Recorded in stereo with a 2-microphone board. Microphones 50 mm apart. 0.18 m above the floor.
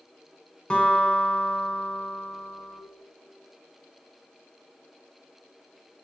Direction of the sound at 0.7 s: 20° left (ahead or behind).